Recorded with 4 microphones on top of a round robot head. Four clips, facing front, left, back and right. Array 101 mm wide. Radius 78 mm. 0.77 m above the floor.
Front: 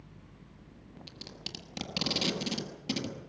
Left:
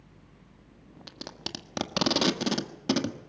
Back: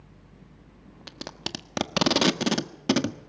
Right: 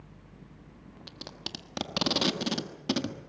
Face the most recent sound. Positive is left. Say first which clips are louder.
# left 3 dB, back 13 dB
turn(degrees=170)